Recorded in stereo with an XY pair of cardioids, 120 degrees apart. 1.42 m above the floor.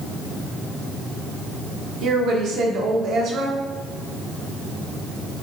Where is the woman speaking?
65° right, 1.3 m.